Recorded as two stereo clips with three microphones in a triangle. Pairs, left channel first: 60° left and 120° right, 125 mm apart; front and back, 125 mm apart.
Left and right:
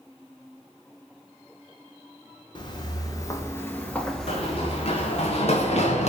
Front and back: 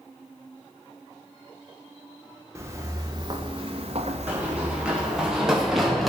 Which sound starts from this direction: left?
Running footsteps, at 4.3 s.